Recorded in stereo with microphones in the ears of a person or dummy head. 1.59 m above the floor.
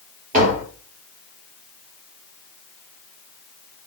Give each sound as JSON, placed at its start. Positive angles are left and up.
{"t": 0.3, "sound": "tapping", "side_deg": -40, "distance_m": 5.0}